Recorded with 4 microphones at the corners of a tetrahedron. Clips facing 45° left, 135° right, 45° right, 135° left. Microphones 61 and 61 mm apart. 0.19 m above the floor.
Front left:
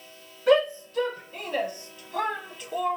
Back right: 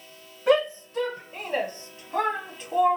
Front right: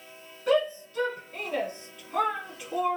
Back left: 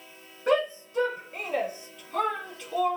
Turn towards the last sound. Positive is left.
turn(degrees=-95)